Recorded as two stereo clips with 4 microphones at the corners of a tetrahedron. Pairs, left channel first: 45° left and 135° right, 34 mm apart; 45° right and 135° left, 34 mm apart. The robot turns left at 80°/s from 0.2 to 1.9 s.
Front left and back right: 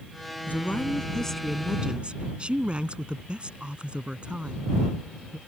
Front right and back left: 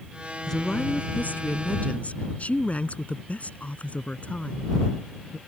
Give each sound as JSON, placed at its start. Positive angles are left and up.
{"t": 0.5, "sound": "a woman speaking", "azimuth_deg": 35}